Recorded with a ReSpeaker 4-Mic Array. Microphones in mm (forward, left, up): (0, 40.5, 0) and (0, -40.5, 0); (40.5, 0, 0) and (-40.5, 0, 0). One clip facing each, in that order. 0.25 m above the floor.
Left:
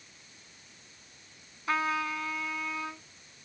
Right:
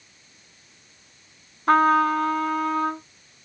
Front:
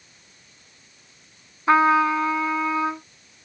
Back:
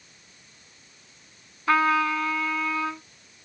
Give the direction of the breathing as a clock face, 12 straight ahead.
No breathing in this recording.